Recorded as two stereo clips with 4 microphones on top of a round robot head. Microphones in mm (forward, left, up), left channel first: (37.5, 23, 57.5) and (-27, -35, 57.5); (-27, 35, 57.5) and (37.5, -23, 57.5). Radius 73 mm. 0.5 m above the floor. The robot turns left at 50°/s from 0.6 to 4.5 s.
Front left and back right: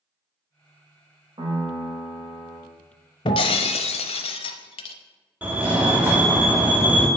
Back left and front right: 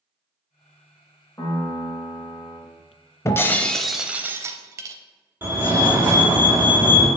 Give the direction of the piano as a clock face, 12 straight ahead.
6 o'clock.